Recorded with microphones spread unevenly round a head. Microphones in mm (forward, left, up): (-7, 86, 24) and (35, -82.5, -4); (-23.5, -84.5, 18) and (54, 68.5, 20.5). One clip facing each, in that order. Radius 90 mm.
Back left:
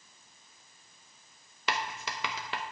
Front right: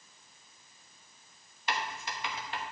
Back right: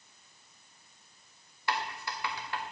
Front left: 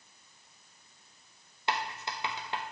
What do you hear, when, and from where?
1.7 s writing: 135° left, 0.6 m